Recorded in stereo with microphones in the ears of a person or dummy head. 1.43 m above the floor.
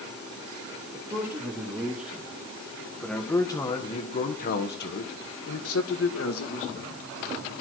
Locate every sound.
0.9 s a man speaking: 20° right (ahead or behind), 2.5 m; by 7.0 s 70° left (ahead or behind), 2.5 m